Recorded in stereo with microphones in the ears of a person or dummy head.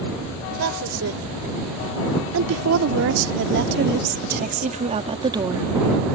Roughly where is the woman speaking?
Right.